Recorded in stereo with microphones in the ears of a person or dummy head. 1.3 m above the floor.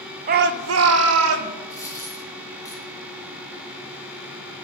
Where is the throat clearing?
No throat clearing in this recording.